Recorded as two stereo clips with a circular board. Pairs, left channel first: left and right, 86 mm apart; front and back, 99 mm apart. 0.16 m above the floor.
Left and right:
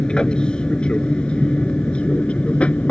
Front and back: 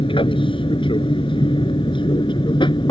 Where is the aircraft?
10° left; by 2.9 s 15° left.